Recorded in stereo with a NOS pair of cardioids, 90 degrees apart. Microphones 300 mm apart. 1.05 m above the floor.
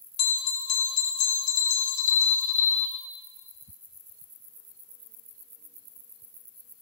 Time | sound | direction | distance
0.2 | a bell | 65° left | 1.1 m